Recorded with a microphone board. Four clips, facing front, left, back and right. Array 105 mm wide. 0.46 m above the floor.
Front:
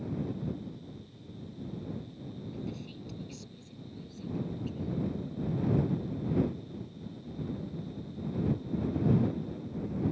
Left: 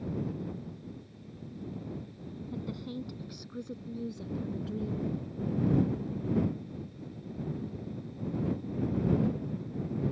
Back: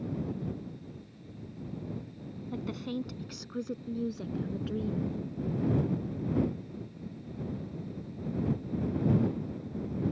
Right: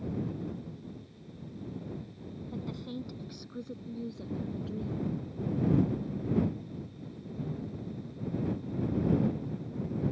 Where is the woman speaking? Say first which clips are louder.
Even, back 9 dB; 175° right; by 5.1 s 170° left.